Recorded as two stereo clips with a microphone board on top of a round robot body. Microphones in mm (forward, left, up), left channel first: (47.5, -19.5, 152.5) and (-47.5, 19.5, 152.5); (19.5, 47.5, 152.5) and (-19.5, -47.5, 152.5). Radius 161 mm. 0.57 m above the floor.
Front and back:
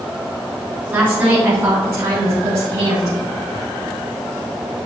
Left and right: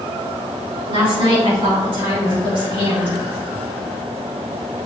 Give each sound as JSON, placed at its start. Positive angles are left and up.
{"t": 0.9, "sound": "a woman speaking", "azimuth_deg": -130, "distance_m": 3.0}